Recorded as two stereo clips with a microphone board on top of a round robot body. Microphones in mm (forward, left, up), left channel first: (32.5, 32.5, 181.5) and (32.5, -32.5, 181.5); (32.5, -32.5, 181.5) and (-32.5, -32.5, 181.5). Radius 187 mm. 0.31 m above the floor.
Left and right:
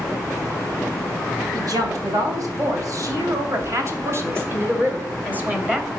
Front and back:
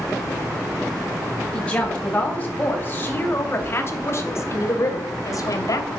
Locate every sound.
1.5 s a woman speaking: 75° right, 4 m; by 5.9 s 20° right, 3 m